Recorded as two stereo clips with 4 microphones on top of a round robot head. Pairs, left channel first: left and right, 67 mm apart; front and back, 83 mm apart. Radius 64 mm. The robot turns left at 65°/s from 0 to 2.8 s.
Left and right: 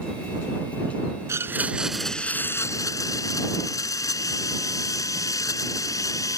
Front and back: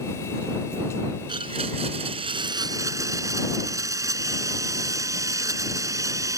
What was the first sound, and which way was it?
A blender, 135° right.